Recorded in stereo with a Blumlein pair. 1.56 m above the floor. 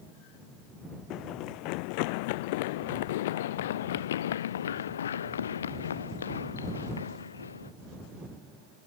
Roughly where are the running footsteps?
Ahead left.